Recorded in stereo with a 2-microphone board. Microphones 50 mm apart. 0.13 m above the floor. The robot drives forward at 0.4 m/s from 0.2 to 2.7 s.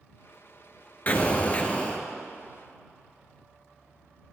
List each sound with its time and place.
1.1 s an explosion: 35° left (ahead or behind), 0.9 m; by 2.0 s 25° left (ahead or behind), 1.2 m